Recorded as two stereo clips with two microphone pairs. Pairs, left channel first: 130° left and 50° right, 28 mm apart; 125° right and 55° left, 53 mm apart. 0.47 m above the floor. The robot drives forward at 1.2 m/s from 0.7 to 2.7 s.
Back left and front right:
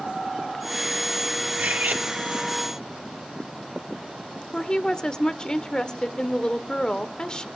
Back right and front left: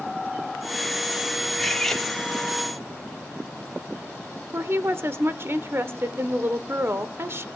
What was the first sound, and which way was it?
Cutlery clinking, 35° right.